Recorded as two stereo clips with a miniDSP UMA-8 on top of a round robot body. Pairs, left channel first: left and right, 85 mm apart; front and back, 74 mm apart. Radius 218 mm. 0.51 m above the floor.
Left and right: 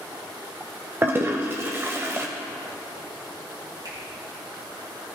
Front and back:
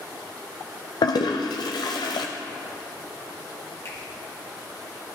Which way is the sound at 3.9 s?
55° right.